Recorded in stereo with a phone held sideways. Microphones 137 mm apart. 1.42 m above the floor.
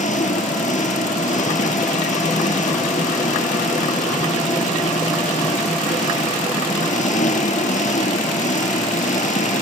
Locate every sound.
0.0 s an engine running: 65° left (ahead or behind)